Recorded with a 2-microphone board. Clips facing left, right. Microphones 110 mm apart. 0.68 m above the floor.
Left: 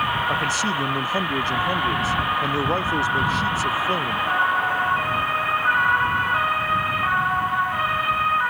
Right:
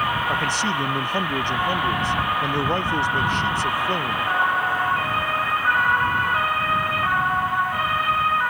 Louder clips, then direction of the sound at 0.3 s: Even; 5° left (ahead or behind).